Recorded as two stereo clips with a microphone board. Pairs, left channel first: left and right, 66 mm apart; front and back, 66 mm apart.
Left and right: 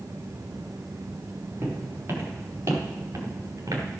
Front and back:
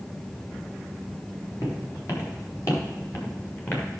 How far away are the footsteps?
About 4.5 m.